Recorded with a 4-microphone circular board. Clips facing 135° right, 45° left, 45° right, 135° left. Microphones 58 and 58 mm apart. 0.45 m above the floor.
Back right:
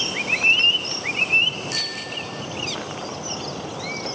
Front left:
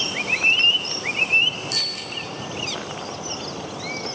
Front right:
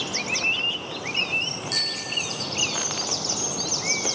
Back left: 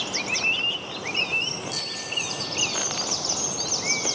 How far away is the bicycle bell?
About 6 m.